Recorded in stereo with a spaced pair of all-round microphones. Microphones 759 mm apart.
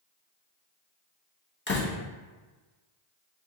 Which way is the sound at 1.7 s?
15° left (ahead or behind).